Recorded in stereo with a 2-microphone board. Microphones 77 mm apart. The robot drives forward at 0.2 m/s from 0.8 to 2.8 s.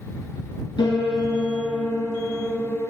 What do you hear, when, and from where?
0.8 s a piano: 80° left, 1.4 m; by 2.9 s 65° left (ahead or behind), 1.5 m